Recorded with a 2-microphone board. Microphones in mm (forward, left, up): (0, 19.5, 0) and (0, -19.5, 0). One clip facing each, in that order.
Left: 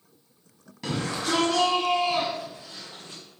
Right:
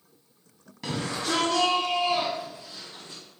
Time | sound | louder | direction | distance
0.8 | a shout | left 1 dB | centre (ahead or behind) | 1.8 m